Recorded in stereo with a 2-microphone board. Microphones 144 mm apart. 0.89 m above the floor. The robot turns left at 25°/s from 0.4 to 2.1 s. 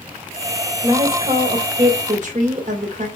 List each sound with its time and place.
0.8 s a woman speaking: 30° right, 3 m; by 3.1 s 60° right, 3 m